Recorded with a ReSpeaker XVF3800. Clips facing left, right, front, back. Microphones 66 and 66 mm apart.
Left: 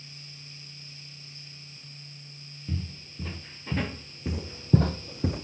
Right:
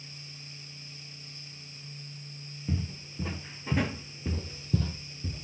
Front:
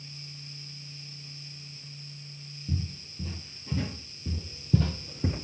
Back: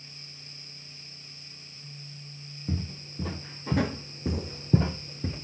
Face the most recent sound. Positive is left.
turn(degrees=65)